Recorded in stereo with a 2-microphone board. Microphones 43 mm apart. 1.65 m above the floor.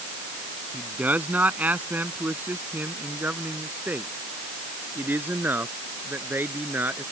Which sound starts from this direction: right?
A man speaking, at 0.7 s.